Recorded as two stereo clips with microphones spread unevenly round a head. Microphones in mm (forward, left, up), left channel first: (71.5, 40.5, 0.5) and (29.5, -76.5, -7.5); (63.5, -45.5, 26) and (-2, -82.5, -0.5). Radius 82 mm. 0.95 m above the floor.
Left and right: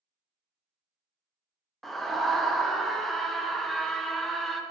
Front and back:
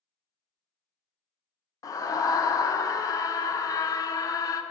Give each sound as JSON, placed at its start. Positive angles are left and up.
{"t": 1.8, "sound": "a scream", "azimuth_deg": -20, "distance_m": 0.5}